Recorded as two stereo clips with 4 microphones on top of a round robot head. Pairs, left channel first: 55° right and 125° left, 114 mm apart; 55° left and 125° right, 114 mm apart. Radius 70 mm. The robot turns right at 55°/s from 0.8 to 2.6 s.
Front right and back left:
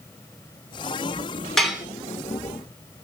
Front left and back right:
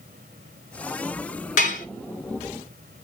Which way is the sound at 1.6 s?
35° left.